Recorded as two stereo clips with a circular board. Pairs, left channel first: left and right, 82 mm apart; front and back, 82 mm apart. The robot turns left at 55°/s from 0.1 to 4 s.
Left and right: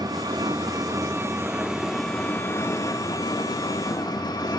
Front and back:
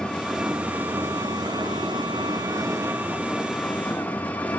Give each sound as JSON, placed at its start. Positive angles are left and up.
{"t": 0.0, "sound": "an engine running", "azimuth_deg": -75, "distance_m": 1.1}